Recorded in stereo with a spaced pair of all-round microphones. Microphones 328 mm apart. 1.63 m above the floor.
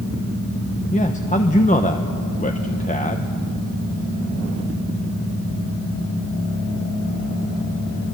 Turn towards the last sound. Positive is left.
turn(degrees=25)  # may be behind; listen again after turning